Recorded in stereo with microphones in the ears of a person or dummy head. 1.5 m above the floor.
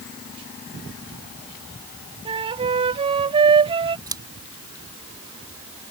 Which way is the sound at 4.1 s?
15° right (ahead or behind).